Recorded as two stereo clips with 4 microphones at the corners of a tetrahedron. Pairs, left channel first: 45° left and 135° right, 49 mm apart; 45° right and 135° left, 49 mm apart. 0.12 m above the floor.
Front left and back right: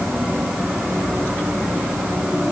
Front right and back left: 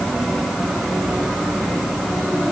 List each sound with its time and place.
Only background noise.